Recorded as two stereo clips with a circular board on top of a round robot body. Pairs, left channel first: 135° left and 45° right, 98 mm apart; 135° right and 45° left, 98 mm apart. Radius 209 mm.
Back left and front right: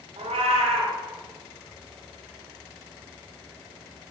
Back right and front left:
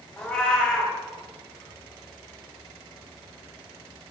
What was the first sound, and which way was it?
A cat meowing, 50° right.